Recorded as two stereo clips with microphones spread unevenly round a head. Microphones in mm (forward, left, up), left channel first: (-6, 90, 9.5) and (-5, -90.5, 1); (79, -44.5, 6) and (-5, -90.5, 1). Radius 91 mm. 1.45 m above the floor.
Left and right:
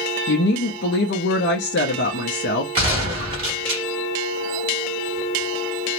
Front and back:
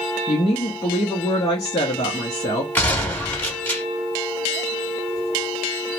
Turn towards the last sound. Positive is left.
turn(degrees=-35)